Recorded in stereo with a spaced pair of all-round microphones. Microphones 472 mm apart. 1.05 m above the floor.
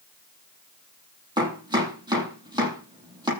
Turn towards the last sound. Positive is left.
turn(degrees=-10)  # may be behind; listen again after turning